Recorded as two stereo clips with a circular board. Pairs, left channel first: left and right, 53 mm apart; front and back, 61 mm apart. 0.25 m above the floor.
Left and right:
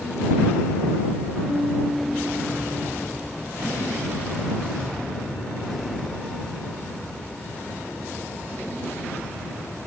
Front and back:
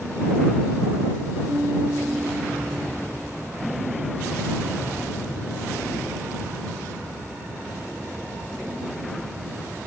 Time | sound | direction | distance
1.5 | a piano | 145° right | ?